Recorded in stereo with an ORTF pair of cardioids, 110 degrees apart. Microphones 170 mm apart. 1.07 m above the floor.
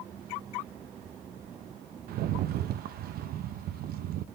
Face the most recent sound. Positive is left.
turn(degrees=-65)